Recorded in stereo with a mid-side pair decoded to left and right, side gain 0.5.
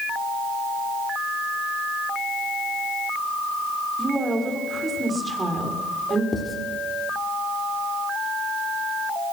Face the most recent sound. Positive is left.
turn(degrees=30)